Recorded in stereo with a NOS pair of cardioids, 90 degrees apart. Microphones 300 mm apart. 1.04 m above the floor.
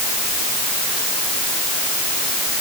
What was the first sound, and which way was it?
Only background noise.